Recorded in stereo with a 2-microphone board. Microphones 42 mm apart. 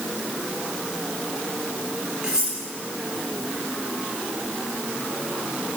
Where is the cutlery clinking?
20° right (ahead or behind), 3 m.